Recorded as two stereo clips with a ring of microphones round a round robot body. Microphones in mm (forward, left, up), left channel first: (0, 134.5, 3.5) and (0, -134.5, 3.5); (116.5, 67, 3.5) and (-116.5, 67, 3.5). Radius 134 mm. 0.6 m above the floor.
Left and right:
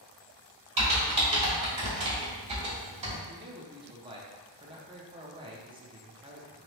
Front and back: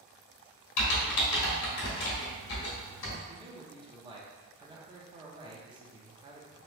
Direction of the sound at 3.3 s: 135° right.